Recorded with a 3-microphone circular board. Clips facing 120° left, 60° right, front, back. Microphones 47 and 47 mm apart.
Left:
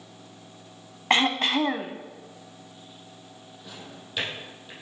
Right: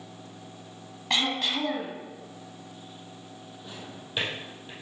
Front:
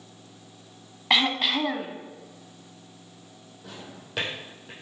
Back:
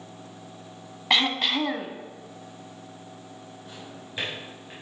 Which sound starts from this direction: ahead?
A drawer, at 3.6 s.